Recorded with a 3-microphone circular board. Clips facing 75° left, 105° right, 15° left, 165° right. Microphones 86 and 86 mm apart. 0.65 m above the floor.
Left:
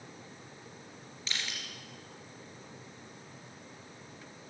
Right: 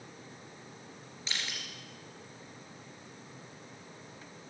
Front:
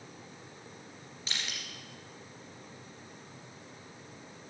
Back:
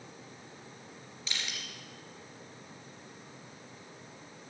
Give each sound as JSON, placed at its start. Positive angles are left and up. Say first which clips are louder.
{"t": 1.3, "sound": "crushing", "louder": "even, even", "azimuth_deg": -40, "distance_m": 3.0}